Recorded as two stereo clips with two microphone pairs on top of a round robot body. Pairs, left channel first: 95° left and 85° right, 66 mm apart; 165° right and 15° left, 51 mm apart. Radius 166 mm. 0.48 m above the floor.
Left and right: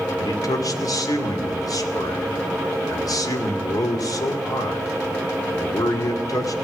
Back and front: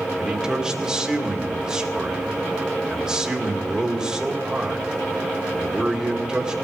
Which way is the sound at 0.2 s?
95° left.